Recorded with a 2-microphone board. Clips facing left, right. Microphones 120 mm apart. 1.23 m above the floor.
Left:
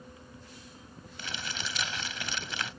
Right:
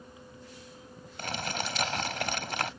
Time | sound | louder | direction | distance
1.2 | crumpling | right 6 dB | 55° right (ahead or behind) | ?